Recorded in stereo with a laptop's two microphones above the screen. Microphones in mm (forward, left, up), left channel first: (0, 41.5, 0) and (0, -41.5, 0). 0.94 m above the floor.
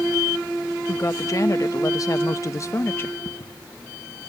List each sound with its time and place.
0.9 s a woman speaking: 40° left (ahead or behind); by 3.1 s 30° left (ahead or behind)
3.2 s footsteps: 60° left (ahead or behind)